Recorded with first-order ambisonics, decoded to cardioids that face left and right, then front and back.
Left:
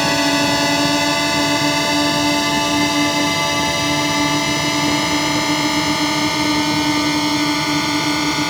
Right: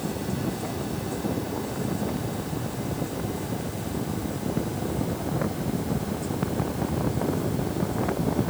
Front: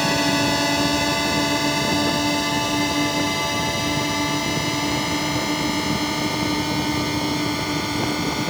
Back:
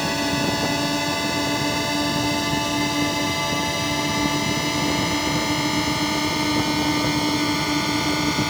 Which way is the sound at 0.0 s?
80° left.